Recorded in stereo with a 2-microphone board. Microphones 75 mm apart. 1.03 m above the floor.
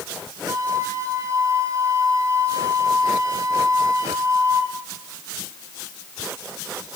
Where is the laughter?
No laughter in this recording.